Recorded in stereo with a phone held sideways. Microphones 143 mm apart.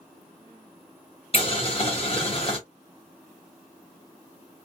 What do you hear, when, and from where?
1.3 s boiling: 45° left (ahead or behind), 1.2 m